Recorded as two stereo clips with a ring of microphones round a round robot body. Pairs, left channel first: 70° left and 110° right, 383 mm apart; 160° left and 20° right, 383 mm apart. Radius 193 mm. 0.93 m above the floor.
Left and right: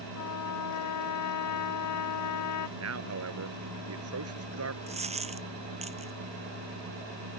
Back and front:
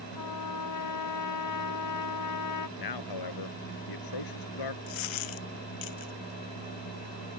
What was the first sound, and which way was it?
A trumpet, 115° left.